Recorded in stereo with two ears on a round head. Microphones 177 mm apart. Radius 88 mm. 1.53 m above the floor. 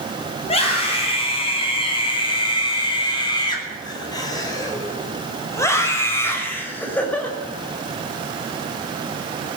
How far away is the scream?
About 9 m.